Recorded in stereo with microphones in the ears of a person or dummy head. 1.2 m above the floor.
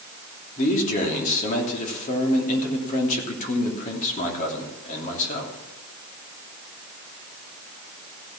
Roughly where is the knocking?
No knocking in this recording.